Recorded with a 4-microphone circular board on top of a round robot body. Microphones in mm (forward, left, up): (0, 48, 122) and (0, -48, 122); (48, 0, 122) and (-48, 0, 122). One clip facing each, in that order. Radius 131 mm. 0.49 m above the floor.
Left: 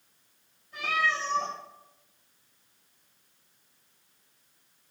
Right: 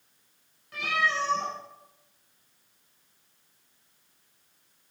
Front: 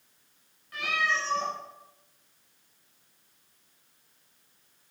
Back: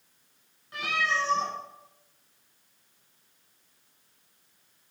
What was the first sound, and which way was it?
A cat meowing, 115° right.